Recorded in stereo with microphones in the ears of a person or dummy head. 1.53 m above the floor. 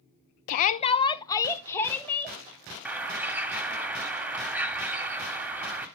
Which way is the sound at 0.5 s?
45° left (ahead or behind).